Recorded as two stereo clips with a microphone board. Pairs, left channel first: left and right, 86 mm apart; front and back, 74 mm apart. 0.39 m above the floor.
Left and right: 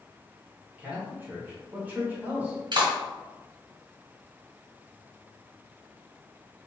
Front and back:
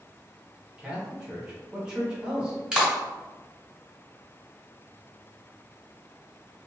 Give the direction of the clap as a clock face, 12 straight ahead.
4 o'clock.